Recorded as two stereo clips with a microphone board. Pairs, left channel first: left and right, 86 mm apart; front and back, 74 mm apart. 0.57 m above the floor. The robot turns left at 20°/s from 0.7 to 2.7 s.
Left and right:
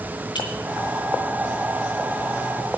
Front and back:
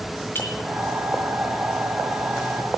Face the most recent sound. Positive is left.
turn(degrees=20)